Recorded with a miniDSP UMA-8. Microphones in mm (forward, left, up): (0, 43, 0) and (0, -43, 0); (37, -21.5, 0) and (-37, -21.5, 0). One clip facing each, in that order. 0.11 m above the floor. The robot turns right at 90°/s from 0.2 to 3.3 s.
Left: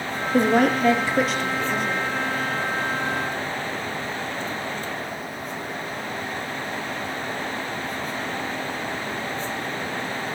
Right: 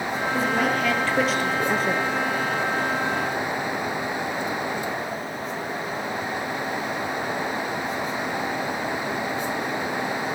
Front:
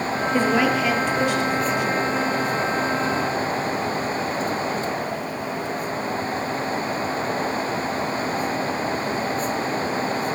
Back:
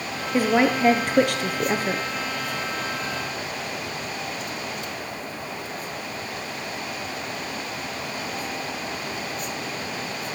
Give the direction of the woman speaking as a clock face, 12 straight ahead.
9 o'clock.